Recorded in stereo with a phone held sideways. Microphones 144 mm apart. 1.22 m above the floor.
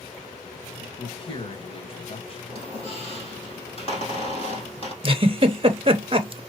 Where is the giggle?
40° right (ahead or behind), 0.7 m.